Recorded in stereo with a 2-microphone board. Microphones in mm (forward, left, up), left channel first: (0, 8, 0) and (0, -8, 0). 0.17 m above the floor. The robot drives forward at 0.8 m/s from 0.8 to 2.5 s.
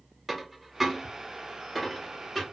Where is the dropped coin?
15° right (ahead or behind), 0.7 m; by 2.4 s 5° right (ahead or behind), 1.7 m.